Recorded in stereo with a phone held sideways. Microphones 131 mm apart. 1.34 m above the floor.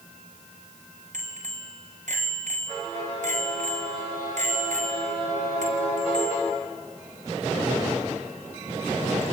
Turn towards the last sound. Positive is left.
turn(degrees=-65)  # may be behind; listen again after turning